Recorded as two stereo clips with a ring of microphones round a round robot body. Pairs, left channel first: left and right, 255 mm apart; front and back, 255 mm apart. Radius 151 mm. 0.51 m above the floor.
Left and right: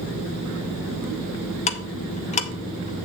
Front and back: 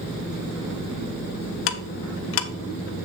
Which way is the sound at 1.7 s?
30° left.